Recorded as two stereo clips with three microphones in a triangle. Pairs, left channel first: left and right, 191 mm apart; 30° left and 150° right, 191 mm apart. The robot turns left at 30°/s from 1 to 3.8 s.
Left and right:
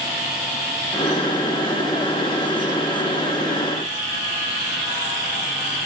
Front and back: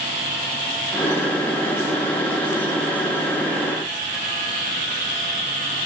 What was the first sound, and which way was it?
Only background noise.